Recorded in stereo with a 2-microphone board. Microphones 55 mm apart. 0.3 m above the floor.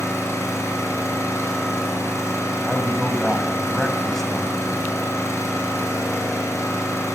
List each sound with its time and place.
0.0 s an engine running: 70° left (ahead or behind), 4 m
2.6 s a man speaking: 5° left (ahead or behind), 2 m